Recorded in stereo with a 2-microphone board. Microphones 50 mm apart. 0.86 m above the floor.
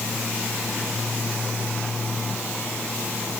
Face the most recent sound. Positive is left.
No sound to turn to.